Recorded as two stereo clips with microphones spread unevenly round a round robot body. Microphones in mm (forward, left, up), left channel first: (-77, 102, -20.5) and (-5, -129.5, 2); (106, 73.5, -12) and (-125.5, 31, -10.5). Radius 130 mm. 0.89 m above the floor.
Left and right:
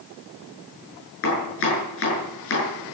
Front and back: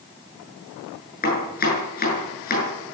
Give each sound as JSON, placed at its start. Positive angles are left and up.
{"t": 1.2, "sound": "chopping", "azimuth_deg": 60, "distance_m": 7.5}